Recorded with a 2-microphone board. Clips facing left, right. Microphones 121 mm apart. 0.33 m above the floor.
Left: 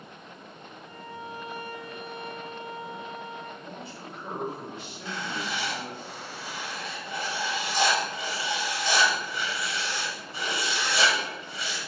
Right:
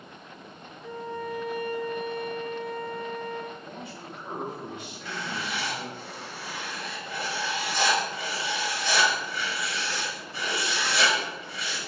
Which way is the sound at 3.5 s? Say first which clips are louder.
Right 1 dB; 35° left (ahead or behind).